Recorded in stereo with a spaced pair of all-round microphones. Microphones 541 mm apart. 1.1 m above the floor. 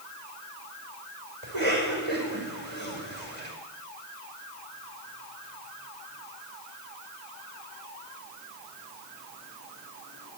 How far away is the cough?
About 5.5 m.